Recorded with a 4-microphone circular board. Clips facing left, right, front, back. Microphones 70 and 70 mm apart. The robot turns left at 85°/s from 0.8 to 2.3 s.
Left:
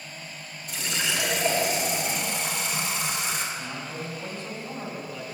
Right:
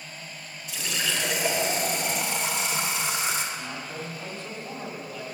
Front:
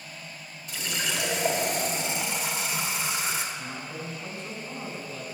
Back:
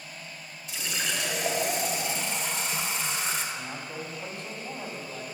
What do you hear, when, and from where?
0.7 s a running tap: 45° left, 1.4 m; by 3.5 s 80° right, 1.4 m
3.5 s a man speaking: 165° right, 2.5 m